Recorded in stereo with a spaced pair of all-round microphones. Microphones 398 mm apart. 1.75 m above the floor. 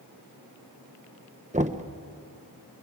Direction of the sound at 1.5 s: 20° right (ahead or behind).